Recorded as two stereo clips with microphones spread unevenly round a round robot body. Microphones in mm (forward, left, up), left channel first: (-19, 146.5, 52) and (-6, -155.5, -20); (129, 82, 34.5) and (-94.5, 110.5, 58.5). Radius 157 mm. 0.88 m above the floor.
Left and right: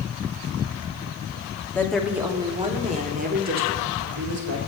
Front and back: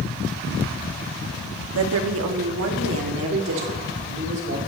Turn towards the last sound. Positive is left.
turn(degrees=-135)